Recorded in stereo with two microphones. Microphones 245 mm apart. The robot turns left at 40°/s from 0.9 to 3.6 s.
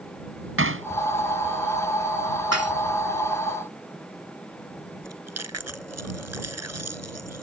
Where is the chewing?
75° right (ahead or behind).